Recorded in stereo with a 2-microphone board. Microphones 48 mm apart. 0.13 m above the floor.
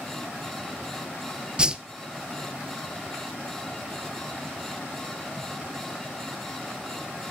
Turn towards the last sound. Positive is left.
turn(degrees=-20)  # may be behind; listen again after turning